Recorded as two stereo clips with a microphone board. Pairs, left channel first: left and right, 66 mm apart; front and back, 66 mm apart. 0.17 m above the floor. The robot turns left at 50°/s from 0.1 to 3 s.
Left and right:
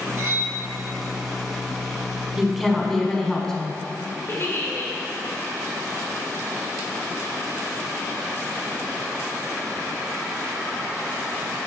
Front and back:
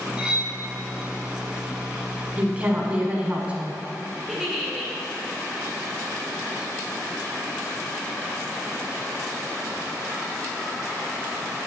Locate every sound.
0.2 s cutlery clinking: 110° right, 1.1 m; by 0.5 s 130° right, 1.1 m
2.4 s a woman speaking: 165° right, 1.2 m; by 3.8 s 160° left, 1.2 m
4.3 s a giggle: 90° left, 1.7 m